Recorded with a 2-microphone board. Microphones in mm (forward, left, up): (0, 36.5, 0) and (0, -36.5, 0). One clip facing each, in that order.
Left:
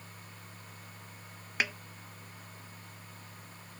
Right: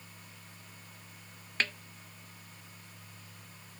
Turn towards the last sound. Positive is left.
turn(degrees=10)  # may be behind; listen again after turning